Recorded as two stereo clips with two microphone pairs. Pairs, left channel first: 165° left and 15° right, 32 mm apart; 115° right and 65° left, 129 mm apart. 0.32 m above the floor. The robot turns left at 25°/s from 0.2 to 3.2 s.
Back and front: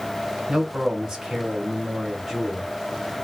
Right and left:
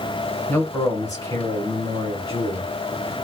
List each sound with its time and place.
0.5 s a man speaking: 60° right, 1.3 m; by 2.7 s 115° right, 1.3 m